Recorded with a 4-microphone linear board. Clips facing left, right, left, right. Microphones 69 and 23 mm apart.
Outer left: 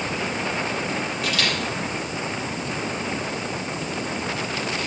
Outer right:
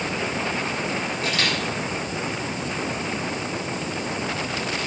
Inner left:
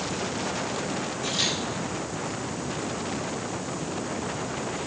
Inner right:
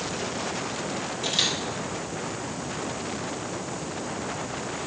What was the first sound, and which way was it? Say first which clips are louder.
A camera shutter: even, inner right 2 dB; 35° right (ahead or behind).